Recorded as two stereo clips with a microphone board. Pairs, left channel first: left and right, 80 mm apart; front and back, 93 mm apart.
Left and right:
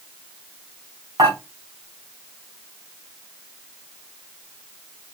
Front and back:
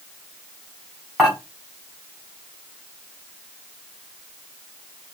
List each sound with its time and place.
1.2 s dishes clattering: 95° right, 3 m